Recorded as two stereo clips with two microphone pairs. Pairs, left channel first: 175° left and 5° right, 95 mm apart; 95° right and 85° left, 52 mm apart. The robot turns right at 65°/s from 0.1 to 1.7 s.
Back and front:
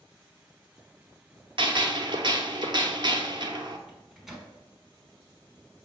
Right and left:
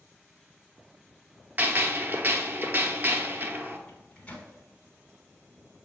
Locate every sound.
1.6 s a gunshot: 25° left, 0.6 m; by 3.8 s 35° left, 0.6 m
3.9 s a microwave: 90° right, 0.8 m